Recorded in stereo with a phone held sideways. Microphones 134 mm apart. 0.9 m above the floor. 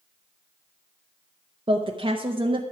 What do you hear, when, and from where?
1.7 s a woman speaking: 40° right (ahead or behind), 0.8 m